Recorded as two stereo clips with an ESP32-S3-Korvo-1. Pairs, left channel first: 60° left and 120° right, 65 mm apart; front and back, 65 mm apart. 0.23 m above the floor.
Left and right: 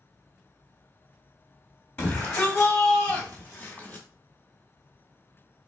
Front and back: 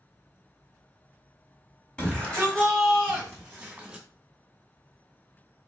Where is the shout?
45° left, 1.7 m; by 4.0 s 115° left, 2 m.